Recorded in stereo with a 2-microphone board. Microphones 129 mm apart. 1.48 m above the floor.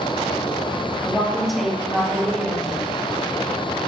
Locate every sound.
1.0 s a woman speaking: centre (ahead or behind), 3 m